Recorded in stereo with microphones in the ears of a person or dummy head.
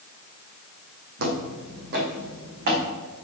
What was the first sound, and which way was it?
Footsteps, 55° right (ahead or behind).